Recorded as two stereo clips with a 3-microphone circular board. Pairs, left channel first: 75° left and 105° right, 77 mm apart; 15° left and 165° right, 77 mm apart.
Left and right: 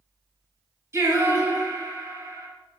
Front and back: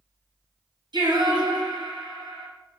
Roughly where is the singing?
Behind.